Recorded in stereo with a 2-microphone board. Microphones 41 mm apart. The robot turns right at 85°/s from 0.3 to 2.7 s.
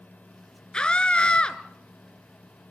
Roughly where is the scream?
Left.